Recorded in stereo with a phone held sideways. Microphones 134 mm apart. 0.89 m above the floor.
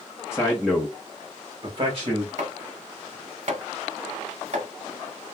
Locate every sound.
0.3 s a man speaking: 20° left (ahead or behind), 0.9 m; by 2.3 s 50° right (ahead or behind), 1.1 m
2.4 s chopping: 55° right (ahead or behind), 1.2 m